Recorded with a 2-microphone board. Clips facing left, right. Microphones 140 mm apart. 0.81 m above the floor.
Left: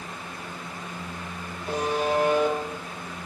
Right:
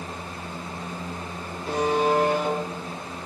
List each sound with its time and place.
1.7 s a buzzer: 90° right, 7.5 m